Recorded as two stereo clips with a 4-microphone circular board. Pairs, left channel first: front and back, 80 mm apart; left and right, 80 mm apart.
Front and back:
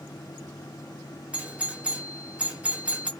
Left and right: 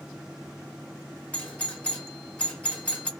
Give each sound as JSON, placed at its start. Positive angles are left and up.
{"t": 1.3, "sound": "a doorbell", "azimuth_deg": 130, "distance_m": 1.3}